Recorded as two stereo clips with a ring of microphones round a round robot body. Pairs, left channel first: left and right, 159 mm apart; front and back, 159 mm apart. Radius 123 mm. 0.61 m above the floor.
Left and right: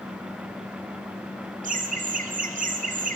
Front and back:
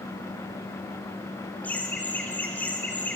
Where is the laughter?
80° right, 2.0 m.